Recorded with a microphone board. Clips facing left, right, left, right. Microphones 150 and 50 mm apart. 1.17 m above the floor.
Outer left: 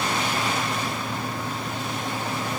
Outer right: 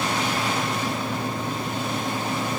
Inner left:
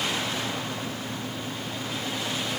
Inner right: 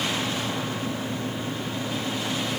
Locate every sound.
Only background noise.